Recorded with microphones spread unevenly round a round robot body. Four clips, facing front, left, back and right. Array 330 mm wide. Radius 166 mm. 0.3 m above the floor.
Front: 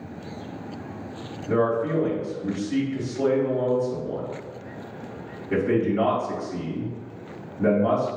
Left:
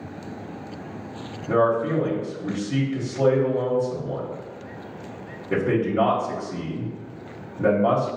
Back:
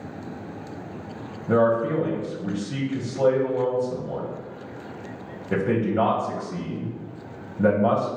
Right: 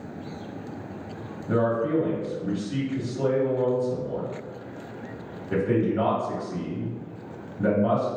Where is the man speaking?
155° left, 1.6 m.